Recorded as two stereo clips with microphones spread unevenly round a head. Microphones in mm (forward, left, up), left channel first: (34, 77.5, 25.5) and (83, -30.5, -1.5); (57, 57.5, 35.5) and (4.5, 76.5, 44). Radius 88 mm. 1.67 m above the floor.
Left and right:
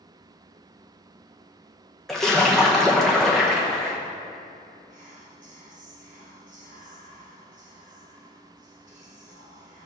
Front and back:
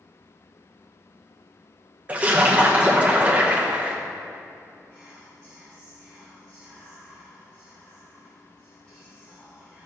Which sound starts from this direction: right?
Whispering, at 4.9 s.